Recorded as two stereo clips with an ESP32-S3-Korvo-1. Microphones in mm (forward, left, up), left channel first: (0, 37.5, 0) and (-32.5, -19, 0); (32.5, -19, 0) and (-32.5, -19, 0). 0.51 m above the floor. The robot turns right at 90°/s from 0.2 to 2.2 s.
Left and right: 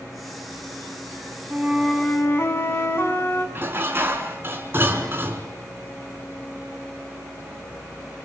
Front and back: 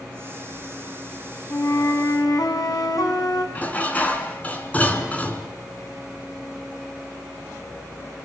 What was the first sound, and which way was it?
A flute, 50° right.